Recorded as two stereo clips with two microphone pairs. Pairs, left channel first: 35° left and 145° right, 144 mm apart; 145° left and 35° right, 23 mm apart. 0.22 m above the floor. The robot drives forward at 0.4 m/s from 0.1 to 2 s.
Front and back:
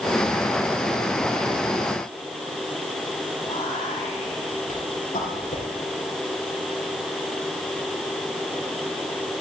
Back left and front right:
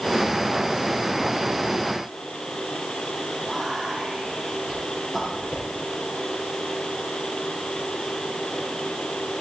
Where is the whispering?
40° left, 3.5 m.